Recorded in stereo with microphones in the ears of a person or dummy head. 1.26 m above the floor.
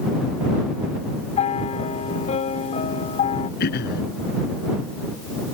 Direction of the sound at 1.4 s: 35° left (ahead or behind).